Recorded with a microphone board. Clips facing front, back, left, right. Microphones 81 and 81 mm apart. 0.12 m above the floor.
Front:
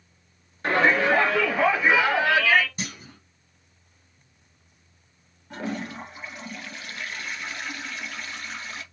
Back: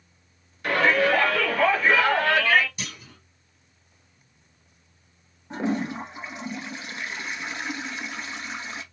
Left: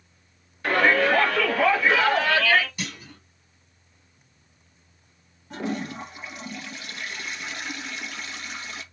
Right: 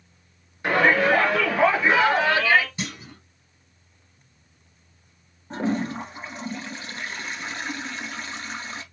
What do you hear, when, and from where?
0.6 s a shout: 35° right, 2 m; by 2.7 s 90° right, 1.8 m
2.8 s a clunk: 35° right, 2.5 m
5.5 s a toilet flushing: 125° right, 1.2 m